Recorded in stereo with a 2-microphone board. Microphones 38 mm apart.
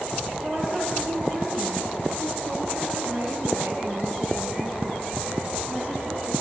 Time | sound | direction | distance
0.4 | a woman speaking | 50° right (ahead or behind) | 9.5 m